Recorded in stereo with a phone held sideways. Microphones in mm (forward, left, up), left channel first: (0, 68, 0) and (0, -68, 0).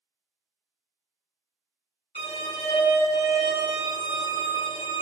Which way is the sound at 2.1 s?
50° left (ahead or behind).